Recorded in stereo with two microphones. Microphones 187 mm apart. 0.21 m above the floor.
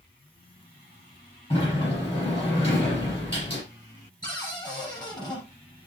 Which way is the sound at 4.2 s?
20° left (ahead or behind).